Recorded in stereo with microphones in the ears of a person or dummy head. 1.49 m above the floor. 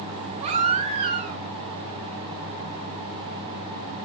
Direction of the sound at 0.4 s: 25° right (ahead or behind).